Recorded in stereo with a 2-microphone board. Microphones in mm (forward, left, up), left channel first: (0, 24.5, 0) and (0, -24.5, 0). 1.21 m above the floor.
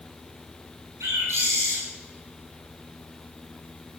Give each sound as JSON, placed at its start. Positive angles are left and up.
{"t": 1.0, "sound": "a bird", "side_deg": -65, "distance_m": 7.0}